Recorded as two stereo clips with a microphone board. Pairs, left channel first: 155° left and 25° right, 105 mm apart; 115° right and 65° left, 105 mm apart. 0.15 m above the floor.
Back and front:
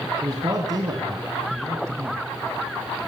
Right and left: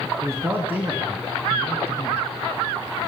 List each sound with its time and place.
0.2 s a man speaking: 15° left, 1.6 m; by 2.2 s 80° right, 1.3 m